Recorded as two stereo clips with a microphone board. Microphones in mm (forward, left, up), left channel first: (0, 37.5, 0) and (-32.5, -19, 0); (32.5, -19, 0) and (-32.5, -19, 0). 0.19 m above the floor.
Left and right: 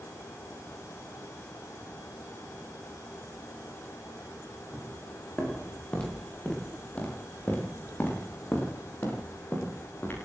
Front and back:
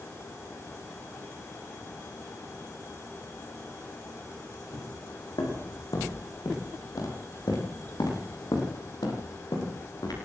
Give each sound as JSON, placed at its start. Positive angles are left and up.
{"t": 4.7, "sound": "footsteps", "azimuth_deg": -20, "distance_m": 9.5}